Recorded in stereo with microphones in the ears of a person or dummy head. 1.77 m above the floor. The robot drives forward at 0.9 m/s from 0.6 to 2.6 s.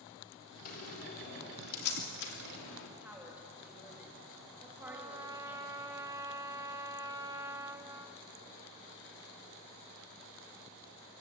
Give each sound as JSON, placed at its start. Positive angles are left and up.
{"t": 0.7, "sound": "a door slam", "side_deg": 45, "distance_m": 4.0}
{"t": 3.0, "sound": "a woman speaking", "side_deg": -10, "distance_m": 4.0}
{"t": 4.8, "sound": "a trumpet", "side_deg": -15, "distance_m": 1.0}